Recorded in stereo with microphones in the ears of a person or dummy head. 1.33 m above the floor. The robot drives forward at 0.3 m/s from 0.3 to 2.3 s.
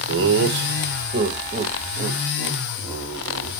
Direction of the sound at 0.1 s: 50° right (ahead or behind).